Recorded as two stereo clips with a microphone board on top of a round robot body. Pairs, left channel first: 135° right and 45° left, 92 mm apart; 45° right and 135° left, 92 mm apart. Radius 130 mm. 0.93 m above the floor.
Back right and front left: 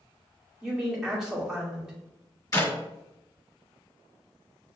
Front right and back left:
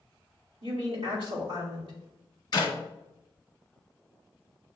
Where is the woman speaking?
130° left, 2 m.